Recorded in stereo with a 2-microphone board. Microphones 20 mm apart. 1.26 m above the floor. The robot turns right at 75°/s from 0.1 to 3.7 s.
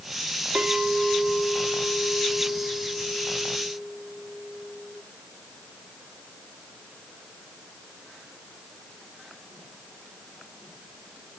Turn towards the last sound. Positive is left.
turn(degrees=165)